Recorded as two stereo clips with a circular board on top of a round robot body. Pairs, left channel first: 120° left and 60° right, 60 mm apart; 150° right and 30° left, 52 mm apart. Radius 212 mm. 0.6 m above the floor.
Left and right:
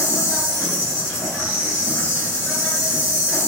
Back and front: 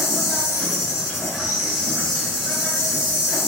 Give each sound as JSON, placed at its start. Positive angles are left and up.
{"t": 0.0, "sound": "an insect", "azimuth_deg": 120, "distance_m": 1.4}